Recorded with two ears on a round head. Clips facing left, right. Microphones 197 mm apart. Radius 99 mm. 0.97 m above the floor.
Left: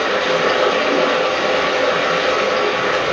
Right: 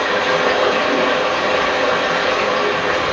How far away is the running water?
About 0.9 m.